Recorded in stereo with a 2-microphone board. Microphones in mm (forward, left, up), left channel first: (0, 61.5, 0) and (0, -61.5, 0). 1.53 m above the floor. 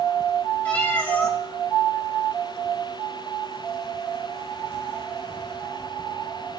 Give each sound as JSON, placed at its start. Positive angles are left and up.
{"t": 0.7, "sound": "a cat meowing", "side_deg": 15, "distance_m": 1.1}